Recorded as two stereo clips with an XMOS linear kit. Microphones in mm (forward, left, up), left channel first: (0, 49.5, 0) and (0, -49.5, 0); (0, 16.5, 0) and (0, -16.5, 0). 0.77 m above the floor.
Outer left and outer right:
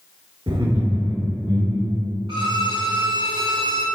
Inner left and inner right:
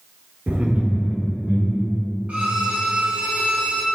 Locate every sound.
0.5 s laughter: 70° right (ahead or behind), 2.5 m; by 2.1 s 75° right (ahead or behind), 4 m
2.3 s a violin: 60° right (ahead or behind), 1.5 m